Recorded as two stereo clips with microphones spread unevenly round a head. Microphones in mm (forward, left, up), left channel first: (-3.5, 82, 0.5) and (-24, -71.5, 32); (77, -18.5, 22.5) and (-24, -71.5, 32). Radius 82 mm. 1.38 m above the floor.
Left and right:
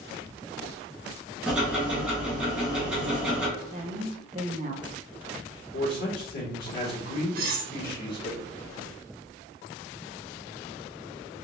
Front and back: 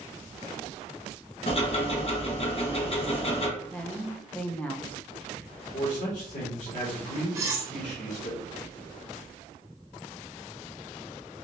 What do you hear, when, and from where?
1.5 s ticking: 10° right, 1.2 m
3.6 s a woman speaking: 55° right, 0.7 m
5.7 s a man speaking: 55° left, 2 m
7.3 s cutlery clinking: 95° right, 1.0 m